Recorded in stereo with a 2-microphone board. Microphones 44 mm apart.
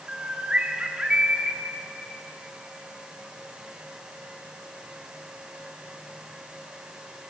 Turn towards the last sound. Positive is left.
turn(degrees=-25)  # may be behind; listen again after turning